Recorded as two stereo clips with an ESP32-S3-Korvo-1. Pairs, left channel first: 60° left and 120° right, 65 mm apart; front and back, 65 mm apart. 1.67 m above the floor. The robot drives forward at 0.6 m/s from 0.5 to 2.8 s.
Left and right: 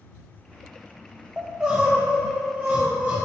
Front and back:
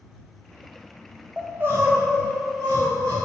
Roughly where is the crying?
Behind.